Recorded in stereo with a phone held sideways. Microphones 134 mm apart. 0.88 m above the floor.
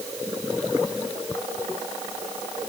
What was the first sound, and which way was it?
Only background noise.